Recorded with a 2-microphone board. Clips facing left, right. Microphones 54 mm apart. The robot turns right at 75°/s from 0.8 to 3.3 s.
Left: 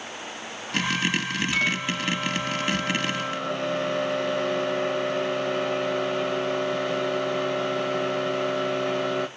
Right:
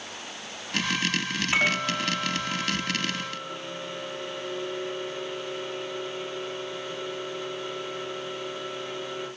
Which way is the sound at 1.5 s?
35° right.